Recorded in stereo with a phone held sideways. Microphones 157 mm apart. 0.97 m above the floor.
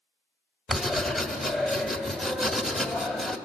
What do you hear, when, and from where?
0.7 s writing: centre (ahead or behind), 1.3 m